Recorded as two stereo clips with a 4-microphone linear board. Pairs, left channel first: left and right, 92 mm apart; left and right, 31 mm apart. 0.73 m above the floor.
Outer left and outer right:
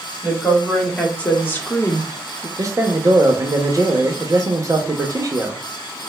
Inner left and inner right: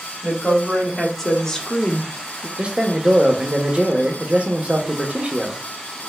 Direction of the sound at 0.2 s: 5° left (ahead or behind).